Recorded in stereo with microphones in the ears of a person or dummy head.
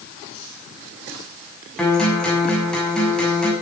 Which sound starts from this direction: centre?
A guitar, at 1.8 s.